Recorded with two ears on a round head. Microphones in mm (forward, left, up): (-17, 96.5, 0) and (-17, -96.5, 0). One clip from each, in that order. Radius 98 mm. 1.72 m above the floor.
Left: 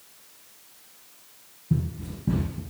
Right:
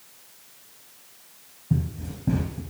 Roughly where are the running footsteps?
Right.